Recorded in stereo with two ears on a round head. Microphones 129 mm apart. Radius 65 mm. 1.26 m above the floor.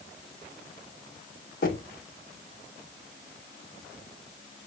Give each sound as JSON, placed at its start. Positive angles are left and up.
{"t": 1.6, "sound": "knocking", "side_deg": 70, "distance_m": 2.5}